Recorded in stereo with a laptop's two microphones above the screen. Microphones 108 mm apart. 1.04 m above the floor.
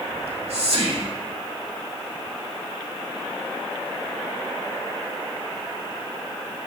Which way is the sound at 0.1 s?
75° right (ahead or behind).